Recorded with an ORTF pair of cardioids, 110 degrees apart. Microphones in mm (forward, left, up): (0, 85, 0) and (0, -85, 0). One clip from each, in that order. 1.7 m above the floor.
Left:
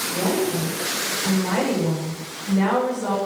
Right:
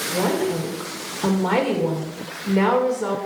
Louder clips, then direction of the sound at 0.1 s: Right 2 dB; 70° right.